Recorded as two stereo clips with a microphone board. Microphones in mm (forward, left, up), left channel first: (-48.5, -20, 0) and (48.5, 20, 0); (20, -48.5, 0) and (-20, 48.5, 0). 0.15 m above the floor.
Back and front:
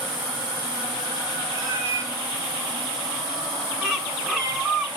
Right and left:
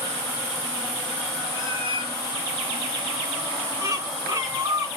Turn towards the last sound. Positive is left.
turn(degrees=105)